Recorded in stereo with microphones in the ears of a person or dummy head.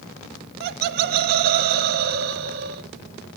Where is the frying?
I don't hear frying.